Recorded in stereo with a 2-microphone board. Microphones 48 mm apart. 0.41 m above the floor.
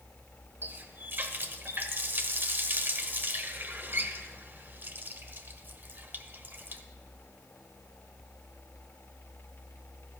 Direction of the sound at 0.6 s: 45° right (ahead or behind).